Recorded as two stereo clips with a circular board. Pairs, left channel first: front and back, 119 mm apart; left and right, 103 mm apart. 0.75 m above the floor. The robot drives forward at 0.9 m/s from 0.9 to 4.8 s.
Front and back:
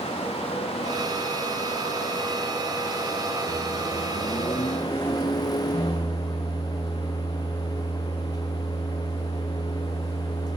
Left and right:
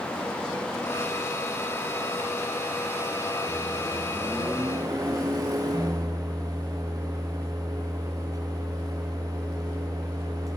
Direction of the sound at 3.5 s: 15° right.